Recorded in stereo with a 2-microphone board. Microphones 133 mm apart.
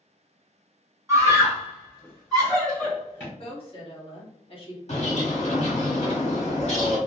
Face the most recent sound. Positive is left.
turn(degrees=60)  # may be behind; listen again after turning